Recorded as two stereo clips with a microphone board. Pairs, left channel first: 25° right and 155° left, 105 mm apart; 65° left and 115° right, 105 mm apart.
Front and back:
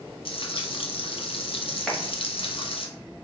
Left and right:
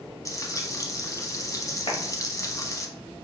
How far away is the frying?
About 0.6 m.